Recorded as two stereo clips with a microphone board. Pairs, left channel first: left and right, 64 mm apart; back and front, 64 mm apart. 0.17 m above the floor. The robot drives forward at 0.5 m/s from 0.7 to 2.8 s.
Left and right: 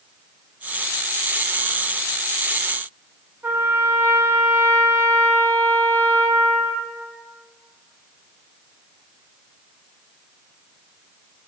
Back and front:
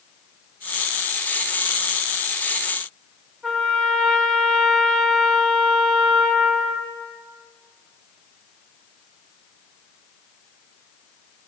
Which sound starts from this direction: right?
A trumpet, at 3.4 s.